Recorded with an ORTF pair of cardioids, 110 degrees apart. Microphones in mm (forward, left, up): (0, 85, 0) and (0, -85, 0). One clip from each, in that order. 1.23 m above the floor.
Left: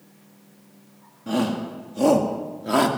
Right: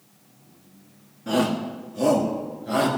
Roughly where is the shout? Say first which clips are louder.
Right 2 dB; ahead.